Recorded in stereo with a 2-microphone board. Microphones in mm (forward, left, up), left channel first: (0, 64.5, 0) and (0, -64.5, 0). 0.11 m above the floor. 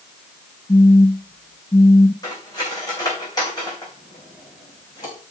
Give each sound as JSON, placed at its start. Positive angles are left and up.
{"t": 0.7, "sound": "a phone buzzing", "side_deg": 30, "distance_m": 1.0}
{"t": 2.2, "sound": "cutlery clinking", "side_deg": 30, "distance_m": 4.5}